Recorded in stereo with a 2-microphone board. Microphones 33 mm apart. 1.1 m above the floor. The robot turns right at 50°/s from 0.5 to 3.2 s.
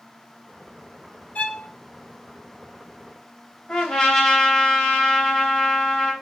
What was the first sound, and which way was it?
A violin, 45° left (ahead or behind).